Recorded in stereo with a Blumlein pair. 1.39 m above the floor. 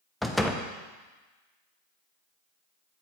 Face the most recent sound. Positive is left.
turn(degrees=5)